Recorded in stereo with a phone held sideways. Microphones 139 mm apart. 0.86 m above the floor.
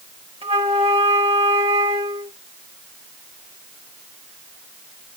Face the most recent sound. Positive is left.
turn(degrees=-40)  # may be behind; listen again after turning